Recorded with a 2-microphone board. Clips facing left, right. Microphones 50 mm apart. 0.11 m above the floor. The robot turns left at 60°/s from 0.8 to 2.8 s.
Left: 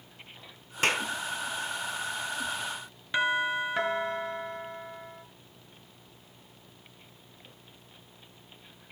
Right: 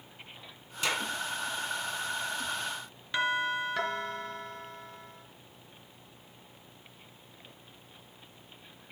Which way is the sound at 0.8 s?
50° left (ahead or behind).